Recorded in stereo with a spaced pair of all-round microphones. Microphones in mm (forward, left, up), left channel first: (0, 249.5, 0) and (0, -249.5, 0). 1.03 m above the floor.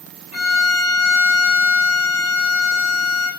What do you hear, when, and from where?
0.3 s a violin: 70° left (ahead or behind), 3 m